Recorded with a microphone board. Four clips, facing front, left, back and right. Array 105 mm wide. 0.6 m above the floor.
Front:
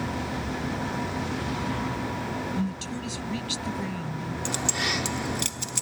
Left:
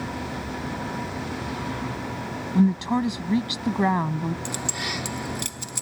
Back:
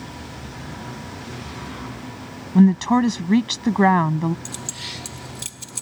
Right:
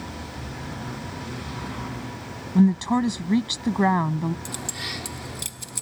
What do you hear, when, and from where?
2.5 s a woman speaking: 175° right
4.5 s keys jangling: 15° left